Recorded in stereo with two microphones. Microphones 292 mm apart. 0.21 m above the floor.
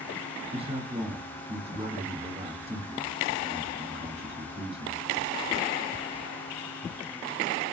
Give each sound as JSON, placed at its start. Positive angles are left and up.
{"t": 0.5, "sound": "a man speaking", "side_deg": -20, "distance_m": 1.2}